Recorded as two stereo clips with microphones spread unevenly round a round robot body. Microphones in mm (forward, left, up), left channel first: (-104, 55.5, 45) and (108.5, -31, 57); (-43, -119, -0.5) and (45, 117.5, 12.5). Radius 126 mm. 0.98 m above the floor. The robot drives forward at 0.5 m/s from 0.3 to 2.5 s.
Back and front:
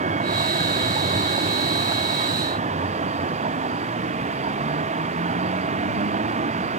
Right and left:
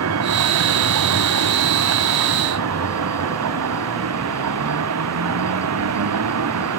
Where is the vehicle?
40° left.